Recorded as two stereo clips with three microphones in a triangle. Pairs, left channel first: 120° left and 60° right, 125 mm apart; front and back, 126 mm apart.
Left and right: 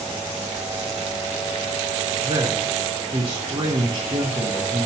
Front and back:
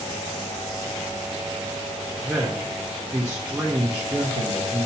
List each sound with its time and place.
2.2 s a man speaking: 100° right, 0.9 m